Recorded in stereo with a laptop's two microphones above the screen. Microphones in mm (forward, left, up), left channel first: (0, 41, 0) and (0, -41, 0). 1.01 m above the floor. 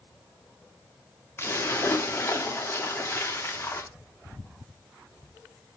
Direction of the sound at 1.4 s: 30° left (ahead or behind).